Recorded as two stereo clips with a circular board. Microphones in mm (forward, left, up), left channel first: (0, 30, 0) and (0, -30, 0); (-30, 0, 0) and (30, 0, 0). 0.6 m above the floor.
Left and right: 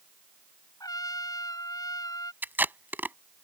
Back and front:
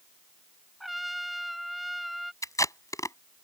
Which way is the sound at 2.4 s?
150° right.